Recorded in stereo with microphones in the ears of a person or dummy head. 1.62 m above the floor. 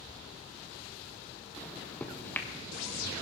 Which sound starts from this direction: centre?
A microwave, at 1.6 s.